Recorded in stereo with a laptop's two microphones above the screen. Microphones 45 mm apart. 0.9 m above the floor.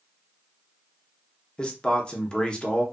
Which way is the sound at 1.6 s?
20° left (ahead or behind).